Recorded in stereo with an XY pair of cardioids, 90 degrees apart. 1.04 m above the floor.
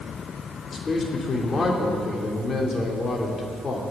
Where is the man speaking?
40° left, 3 m.